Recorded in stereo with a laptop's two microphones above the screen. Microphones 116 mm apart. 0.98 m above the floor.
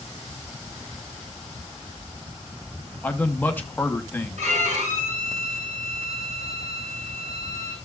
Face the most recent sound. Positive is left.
turn(degrees=-65)  # may be behind; listen again after turning